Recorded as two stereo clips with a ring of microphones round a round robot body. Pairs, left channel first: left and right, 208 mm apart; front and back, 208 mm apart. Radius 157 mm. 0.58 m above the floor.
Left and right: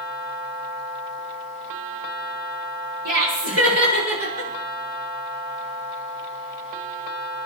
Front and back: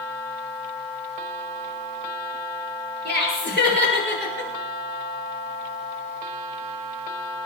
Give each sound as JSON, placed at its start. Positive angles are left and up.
{"t": 3.0, "sound": "laughter", "azimuth_deg": -125, "distance_m": 9.0}